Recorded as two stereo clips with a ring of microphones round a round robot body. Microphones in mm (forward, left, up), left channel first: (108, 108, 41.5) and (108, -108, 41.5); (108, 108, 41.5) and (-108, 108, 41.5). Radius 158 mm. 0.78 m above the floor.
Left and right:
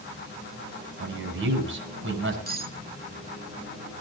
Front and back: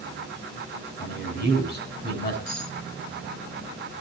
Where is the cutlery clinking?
45° right, 7 m.